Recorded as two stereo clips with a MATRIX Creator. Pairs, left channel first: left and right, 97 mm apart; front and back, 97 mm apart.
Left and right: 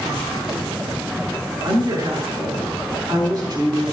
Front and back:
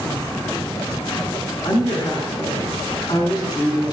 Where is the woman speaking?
45° right, 4.5 m.